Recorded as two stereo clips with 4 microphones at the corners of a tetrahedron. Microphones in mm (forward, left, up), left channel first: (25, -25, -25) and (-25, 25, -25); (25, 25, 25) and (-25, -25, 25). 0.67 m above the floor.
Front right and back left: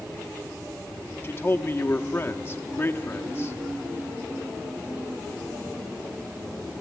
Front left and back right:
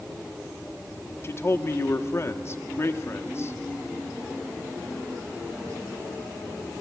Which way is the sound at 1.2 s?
5° left.